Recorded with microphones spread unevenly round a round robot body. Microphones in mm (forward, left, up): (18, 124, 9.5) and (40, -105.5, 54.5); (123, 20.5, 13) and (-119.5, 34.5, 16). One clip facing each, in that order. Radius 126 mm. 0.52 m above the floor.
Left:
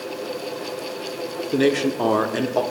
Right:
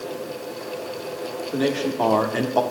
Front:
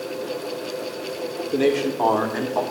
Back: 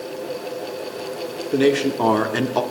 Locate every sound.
1.5 s a man speaking: 110° left, 1.3 m; by 2.6 s 170° left, 1.2 m